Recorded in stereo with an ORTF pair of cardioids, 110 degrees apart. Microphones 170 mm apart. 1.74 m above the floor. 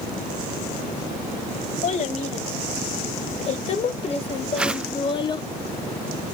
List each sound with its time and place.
1.8 s a child speaking: 45° left, 3.5 m; by 5.5 s 25° left, 1.1 m
4.6 s a whoosh: 5° right, 0.6 m